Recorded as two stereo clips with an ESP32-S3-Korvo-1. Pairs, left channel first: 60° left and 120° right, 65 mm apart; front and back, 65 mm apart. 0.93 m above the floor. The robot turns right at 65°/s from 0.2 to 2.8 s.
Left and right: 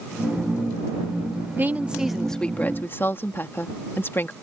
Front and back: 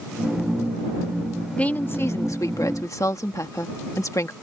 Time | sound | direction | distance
1.6 | a woman speaking | 65° right | ?